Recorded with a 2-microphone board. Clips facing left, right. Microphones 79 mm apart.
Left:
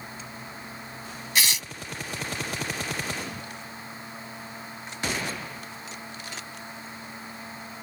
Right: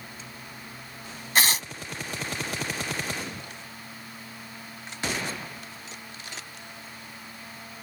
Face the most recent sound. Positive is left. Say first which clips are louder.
# right 4 dB
turn(degrees=-45)  # may be behind; listen again after turning